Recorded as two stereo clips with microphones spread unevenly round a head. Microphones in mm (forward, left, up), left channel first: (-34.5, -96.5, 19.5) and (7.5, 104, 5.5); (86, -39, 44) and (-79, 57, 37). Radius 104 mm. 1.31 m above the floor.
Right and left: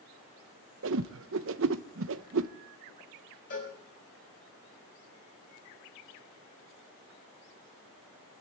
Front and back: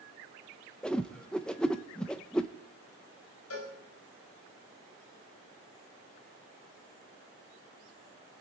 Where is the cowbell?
50° right, 5.5 m.